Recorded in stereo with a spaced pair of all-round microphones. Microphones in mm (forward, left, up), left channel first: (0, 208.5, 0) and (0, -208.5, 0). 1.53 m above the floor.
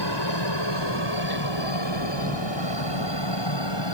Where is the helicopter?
75° left (ahead or behind); by 4.0 s 80° left.